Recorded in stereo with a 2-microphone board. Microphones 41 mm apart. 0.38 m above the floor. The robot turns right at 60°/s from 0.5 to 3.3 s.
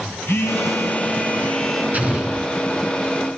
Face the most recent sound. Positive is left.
turn(degrees=40)